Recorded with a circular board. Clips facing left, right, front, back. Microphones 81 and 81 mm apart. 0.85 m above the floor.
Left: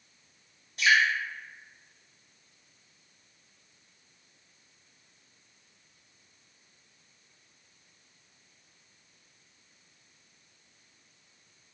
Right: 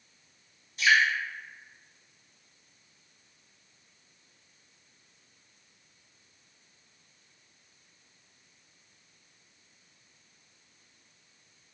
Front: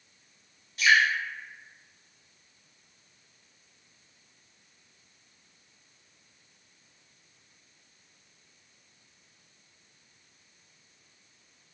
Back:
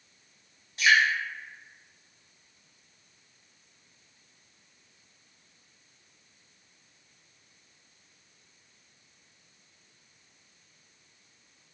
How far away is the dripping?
About 1.6 m.